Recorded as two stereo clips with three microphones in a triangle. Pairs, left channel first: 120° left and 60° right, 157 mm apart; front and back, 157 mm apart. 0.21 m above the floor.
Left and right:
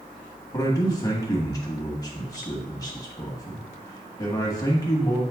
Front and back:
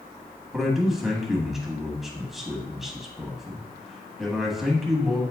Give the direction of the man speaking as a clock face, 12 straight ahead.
9 o'clock.